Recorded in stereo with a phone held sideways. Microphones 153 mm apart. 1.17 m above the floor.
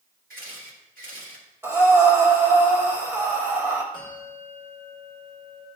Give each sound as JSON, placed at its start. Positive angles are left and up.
{"t": 0.3, "sound": "a camera shutter", "side_deg": -75, "distance_m": 1.7}
{"t": 1.6, "sound": "breathing", "side_deg": -15, "distance_m": 1.2}
{"t": 3.9, "sound": "a bell", "side_deg": -35, "distance_m": 2.0}